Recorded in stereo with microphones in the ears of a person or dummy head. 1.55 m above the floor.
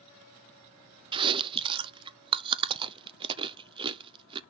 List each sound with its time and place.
1.1 s chewing: 25° right (ahead or behind), 0.6 m